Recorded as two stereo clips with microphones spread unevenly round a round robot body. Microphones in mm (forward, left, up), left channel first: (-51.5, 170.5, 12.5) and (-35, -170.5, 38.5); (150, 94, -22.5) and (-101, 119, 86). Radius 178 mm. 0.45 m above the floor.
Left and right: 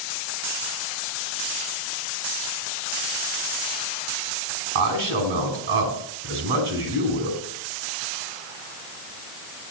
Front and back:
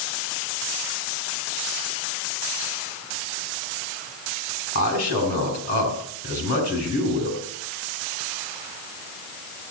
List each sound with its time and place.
4.8 s a man speaking: 60° right, 5 m